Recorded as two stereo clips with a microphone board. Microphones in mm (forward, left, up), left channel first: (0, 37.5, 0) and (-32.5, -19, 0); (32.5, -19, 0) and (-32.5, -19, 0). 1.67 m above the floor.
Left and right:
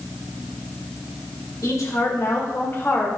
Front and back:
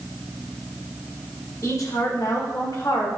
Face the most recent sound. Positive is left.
turn(degrees=0)